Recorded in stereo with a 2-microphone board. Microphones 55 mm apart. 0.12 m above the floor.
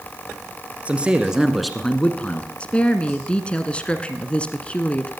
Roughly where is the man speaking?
Right.